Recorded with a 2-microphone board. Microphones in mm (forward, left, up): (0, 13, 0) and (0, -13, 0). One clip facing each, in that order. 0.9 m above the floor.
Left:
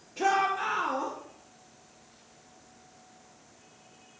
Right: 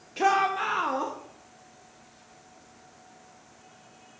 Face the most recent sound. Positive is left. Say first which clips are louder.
# right 3 dB
turn(degrees=-50)  # may be behind; listen again after turning